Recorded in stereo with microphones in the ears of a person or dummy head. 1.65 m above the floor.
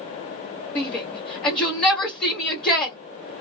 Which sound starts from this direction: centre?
A shout, at 0.8 s.